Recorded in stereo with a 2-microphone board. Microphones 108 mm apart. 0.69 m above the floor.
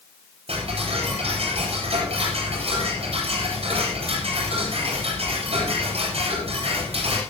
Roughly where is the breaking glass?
No breaking glass in this recording.